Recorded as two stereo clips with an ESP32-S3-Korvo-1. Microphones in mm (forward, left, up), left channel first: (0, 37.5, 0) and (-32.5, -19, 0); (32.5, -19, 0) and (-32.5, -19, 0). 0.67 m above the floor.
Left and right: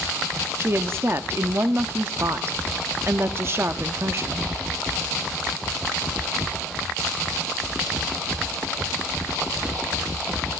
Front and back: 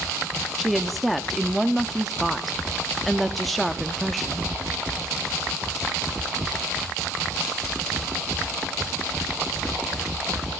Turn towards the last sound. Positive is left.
turn(degrees=-90)